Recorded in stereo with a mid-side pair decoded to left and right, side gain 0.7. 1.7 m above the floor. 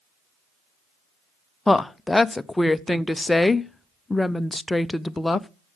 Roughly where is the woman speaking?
Ahead.